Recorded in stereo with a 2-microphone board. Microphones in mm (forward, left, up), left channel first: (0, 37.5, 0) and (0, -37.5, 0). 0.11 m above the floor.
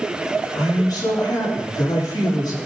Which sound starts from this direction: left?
A man speaking, at 0.6 s.